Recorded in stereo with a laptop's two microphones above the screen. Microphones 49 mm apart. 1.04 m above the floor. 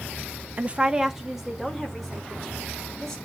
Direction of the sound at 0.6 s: 35° right (ahead or behind).